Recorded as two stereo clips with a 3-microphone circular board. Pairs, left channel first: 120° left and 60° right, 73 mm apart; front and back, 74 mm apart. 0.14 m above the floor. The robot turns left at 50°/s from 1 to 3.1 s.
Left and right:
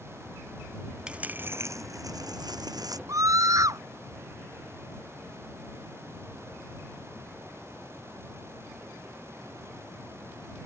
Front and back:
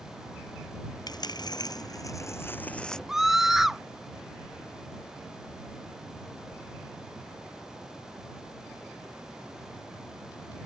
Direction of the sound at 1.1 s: 15° left.